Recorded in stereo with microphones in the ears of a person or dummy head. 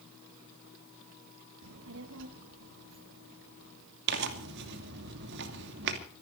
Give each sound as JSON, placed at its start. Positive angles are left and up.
{"t": 1.6, "sound": "a child speaking", "side_deg": -65, "distance_m": 0.7}
{"t": 4.1, "sound": "tearing paper", "side_deg": -55, "distance_m": 2.5}